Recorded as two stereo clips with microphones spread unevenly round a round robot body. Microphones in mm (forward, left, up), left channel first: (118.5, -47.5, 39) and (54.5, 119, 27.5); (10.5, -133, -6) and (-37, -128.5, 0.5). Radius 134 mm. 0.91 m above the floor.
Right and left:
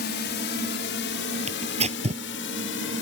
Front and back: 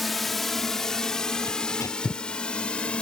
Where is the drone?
95° right; by 3.0 s 75° right.